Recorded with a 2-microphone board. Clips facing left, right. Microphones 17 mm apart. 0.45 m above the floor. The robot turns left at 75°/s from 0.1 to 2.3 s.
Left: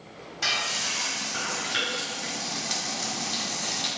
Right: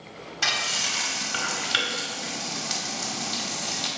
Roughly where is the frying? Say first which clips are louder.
Right 2 dB; right.